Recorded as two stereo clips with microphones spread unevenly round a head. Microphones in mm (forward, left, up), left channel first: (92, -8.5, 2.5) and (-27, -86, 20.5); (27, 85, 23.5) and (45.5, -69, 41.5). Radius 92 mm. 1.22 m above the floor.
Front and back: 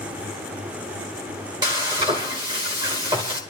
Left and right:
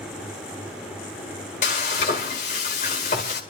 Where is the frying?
150° left, 1.7 m.